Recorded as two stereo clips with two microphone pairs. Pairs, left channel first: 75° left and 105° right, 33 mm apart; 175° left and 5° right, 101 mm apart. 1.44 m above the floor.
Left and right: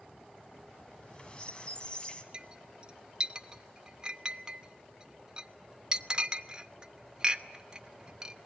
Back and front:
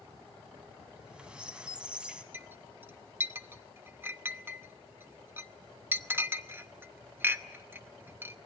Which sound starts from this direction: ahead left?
A squeak, at 0.9 s.